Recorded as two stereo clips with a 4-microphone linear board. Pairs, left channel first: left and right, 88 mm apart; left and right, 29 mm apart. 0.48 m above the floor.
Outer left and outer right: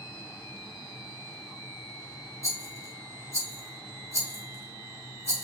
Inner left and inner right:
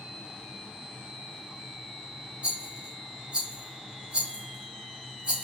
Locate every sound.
2.4 s a rattle: 35° right (ahead or behind), 1.7 m